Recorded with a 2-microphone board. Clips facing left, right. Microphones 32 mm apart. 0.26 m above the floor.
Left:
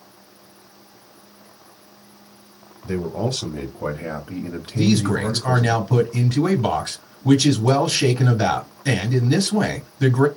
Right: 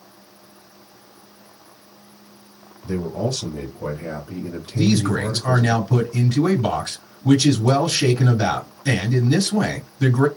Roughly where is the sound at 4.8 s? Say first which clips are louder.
Even; centre.